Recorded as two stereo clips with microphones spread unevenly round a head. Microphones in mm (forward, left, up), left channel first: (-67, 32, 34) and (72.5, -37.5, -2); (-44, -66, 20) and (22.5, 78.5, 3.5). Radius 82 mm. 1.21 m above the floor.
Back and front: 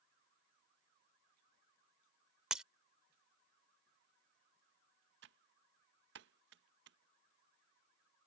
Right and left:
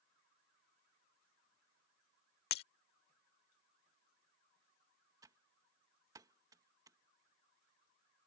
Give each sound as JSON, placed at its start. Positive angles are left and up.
{"t": 2.5, "sound": "breaking glass", "azimuth_deg": -120}
{"t": 5.2, "sound": "typing on a keyboard", "azimuth_deg": -5}